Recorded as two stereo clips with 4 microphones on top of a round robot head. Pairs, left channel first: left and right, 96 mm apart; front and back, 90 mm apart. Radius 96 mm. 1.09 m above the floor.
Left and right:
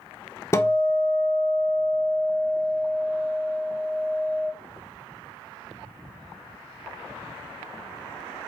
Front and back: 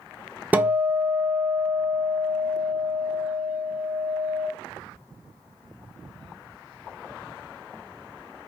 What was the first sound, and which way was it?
A guitar, 120° left.